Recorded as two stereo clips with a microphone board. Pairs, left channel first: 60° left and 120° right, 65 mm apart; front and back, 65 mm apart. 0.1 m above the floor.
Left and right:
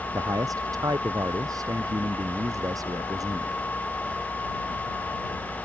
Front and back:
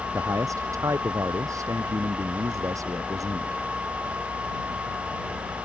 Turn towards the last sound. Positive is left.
turn(degrees=-150)